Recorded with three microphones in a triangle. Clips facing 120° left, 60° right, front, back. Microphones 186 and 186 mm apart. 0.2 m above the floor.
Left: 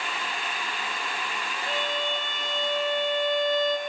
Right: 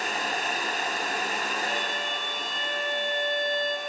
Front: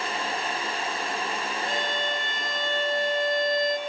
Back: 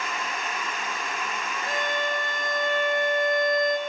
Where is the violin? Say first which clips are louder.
Left 2 dB, back 4 dB; 5° left, 1.5 m.